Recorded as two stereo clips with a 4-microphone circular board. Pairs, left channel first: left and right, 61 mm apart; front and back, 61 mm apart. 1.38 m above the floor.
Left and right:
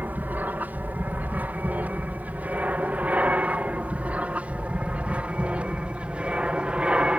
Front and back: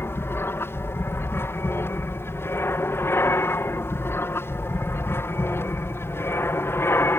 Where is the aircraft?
35° right; by 7.2 s 25° right.